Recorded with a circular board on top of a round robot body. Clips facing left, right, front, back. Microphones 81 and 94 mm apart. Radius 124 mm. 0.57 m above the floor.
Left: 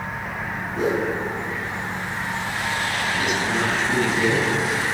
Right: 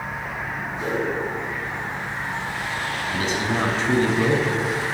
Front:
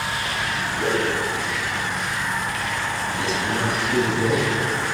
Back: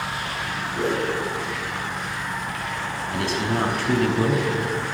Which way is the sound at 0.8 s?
125° left.